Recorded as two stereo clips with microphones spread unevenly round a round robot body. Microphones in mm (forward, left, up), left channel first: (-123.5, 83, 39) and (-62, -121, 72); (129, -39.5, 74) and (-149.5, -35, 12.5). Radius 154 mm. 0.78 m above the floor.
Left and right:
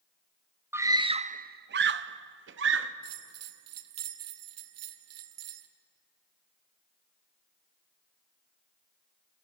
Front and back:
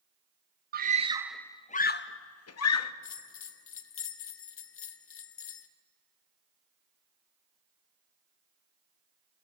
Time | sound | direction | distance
0.7 | a scream | 160° right | 0.8 m
3.0 | a bell | 50° right | 1.2 m